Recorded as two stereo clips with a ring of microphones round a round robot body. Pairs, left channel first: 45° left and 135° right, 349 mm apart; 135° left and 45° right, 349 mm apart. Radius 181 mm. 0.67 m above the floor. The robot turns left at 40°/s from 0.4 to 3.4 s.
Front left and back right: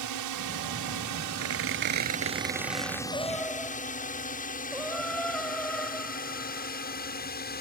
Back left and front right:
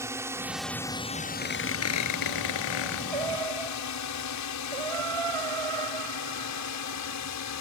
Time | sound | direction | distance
0.0 | a drone | 125° right | ?
1.4 | a squeak | 155° right | ?
3.1 | singing | 30° right | ?